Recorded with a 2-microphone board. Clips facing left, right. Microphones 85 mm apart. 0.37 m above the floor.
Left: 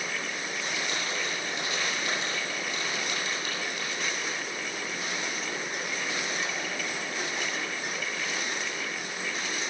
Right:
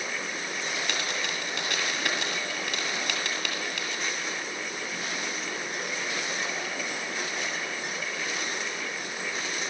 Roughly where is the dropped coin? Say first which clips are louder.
Right 1 dB; right.